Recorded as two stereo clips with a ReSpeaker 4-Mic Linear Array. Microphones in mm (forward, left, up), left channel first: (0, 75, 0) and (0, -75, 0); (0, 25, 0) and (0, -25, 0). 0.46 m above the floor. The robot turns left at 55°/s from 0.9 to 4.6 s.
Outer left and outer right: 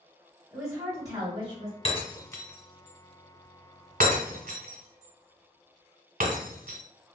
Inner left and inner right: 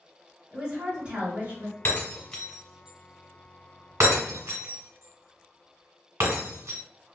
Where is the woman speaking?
20° right, 1.9 m; by 1.8 s 70° right, 1.9 m.